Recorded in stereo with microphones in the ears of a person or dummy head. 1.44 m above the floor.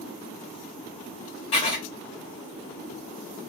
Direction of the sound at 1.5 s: 35° left (ahead or behind).